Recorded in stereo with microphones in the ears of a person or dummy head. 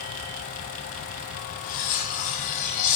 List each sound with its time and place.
1.6 s cutlery clinking: 40° left (ahead or behind), 0.7 m